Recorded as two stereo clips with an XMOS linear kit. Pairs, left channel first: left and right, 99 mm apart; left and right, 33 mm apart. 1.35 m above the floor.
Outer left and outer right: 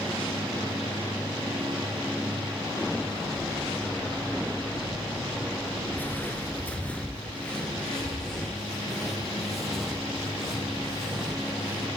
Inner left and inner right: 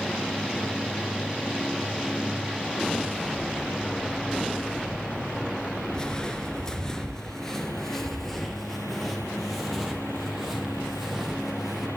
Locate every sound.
5.9 s footsteps: 20° left (ahead or behind), 1.3 m; by 11.9 s 5° right (ahead or behind), 4 m